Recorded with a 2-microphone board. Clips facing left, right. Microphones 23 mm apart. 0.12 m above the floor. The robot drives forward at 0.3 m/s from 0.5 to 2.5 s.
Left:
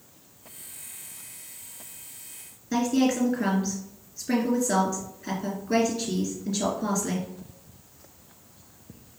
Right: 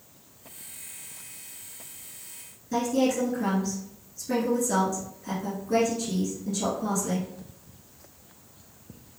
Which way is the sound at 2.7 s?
45° left (ahead or behind).